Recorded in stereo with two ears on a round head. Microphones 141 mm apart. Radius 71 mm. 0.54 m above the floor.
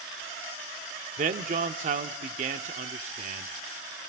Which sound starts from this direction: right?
A man speaking, at 1.2 s.